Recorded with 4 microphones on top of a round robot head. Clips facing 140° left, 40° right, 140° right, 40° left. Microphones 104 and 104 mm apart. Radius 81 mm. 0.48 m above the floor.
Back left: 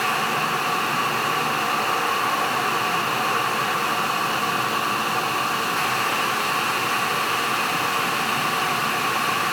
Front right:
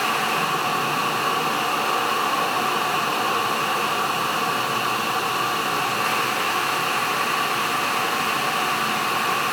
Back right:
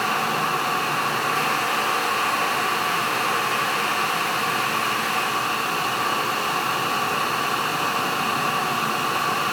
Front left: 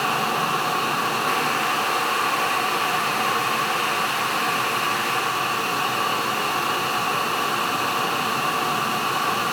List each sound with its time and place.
Only background noise.